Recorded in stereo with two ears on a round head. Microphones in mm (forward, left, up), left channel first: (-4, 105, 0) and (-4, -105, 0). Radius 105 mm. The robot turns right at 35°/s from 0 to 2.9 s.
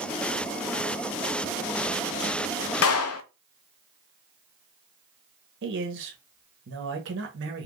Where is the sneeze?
I don't hear a sneeze.